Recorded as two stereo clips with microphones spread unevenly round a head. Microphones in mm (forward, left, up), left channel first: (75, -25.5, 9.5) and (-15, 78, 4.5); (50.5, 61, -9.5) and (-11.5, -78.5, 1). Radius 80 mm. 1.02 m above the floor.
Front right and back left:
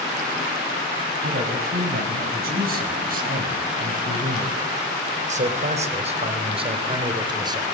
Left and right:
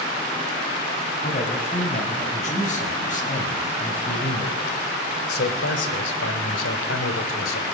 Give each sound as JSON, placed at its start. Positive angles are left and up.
{"t": 1.2, "sound": "a man speaking", "azimuth_deg": 120, "distance_m": 6.5}